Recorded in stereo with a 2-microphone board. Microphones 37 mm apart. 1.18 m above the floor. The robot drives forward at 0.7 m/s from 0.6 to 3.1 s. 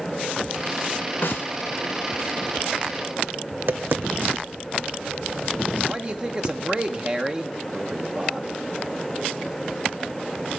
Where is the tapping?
55° right (ahead or behind), 0.7 m.